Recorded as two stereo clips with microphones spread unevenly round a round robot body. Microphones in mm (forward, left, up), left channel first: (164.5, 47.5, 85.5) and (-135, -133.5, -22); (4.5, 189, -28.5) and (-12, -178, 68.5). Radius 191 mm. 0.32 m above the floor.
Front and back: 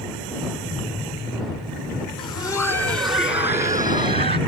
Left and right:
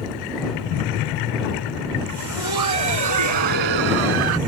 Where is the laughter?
50° right; by 4.4 s 80° right.